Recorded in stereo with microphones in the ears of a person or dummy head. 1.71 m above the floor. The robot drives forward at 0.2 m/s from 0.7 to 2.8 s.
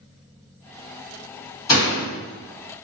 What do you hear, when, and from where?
1.7 s a door slam: 20° left (ahead or behind), 1.2 m